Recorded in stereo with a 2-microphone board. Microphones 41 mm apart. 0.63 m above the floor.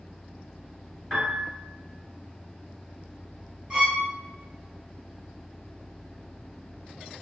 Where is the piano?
5° right (ahead or behind), 1.7 m.